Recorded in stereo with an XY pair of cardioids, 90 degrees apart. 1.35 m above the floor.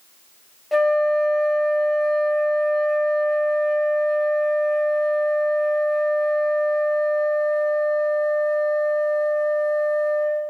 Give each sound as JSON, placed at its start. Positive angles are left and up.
{"t": 0.7, "sound": "a flute", "azimuth_deg": 10, "distance_m": 1.1}